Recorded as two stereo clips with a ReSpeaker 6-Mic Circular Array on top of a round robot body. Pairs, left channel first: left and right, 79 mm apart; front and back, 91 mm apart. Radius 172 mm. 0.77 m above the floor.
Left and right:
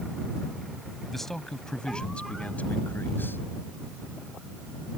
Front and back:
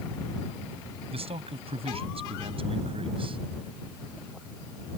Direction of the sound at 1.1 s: Straight behind.